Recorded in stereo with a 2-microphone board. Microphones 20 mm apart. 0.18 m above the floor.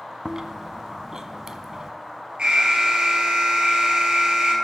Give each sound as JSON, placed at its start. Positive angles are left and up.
{"t": 0.2, "sound": "chewing", "side_deg": -35, "distance_m": 0.5}
{"t": 2.4, "sound": "an alarm", "side_deg": -55, "distance_m": 2.5}